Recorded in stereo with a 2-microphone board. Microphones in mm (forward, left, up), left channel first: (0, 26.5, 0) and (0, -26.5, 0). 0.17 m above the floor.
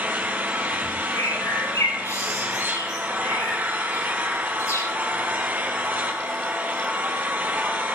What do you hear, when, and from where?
0.0 s an engine running: 30° right (ahead or behind), 3 m
1.1 s a bird: 65° left (ahead or behind), 7 m